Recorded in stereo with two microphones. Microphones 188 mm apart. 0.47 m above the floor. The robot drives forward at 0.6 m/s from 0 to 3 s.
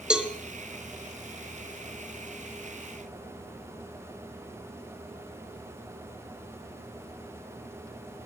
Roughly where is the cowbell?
Centre.